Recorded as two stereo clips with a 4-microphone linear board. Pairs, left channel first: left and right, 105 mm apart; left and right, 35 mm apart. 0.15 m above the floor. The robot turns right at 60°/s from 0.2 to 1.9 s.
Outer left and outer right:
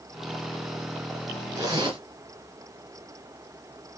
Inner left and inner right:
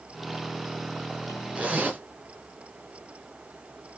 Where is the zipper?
25° right (ahead or behind), 2.5 m; by 2.0 s 40° right (ahead or behind), 2.5 m.